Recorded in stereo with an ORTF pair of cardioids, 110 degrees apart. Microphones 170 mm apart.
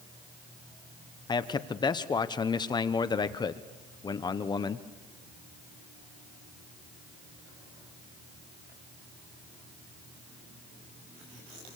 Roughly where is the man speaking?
Ahead left.